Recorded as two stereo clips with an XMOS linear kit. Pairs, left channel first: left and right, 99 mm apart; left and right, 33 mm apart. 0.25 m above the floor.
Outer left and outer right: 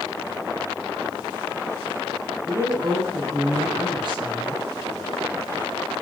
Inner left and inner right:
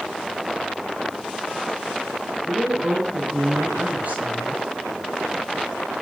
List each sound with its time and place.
2.5 s a woman speaking: 50° right (ahead or behind), 3.5 m